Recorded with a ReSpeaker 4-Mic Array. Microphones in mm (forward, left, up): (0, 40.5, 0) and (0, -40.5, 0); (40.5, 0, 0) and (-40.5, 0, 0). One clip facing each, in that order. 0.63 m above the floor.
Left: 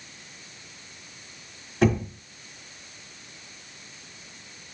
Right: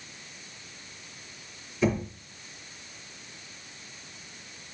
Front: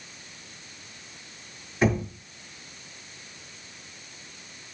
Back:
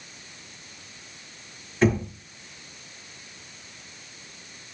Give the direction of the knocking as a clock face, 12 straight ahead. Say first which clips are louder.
Left 4 dB, back 2 dB; 9 o'clock.